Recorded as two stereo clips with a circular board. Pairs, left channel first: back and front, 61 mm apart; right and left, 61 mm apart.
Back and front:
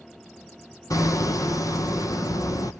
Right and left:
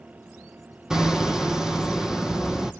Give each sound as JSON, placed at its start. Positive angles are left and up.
{"t": 0.9, "sound": "hammering", "azimuth_deg": 170, "distance_m": 1.3}